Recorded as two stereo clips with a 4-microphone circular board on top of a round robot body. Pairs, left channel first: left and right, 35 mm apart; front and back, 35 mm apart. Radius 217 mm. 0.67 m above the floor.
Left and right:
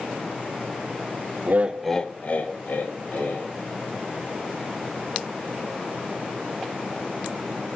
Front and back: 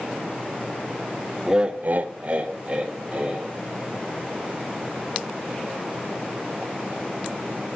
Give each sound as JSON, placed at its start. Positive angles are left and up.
{"t": 1.5, "sound": "laughter", "azimuth_deg": -110, "distance_m": 0.6}